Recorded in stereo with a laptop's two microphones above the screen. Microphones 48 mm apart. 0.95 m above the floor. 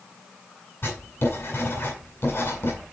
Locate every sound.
0.8 s writing: 60° left (ahead or behind), 7.5 m